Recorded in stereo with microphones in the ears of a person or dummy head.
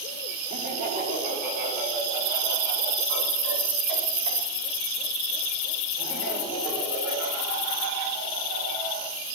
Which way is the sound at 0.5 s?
35° right (ahead or behind).